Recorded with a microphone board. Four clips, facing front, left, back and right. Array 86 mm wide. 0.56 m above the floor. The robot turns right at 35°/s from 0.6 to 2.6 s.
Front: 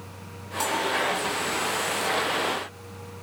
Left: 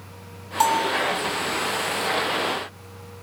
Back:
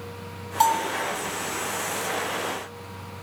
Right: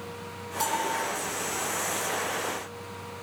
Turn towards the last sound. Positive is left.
turn(degrees=-160)